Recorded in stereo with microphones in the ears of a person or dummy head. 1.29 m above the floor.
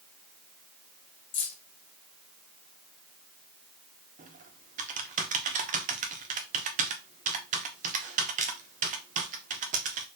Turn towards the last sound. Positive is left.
turn(degrees=-35)  # may be behind; listen again after turning